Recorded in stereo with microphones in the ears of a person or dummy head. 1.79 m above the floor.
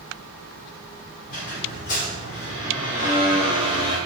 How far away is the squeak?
About 1.3 m.